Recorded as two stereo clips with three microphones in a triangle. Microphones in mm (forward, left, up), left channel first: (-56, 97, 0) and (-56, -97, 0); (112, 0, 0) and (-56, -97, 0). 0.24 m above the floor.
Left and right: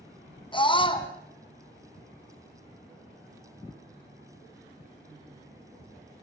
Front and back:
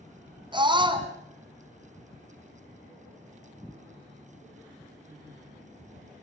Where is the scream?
150° left, 2.5 m.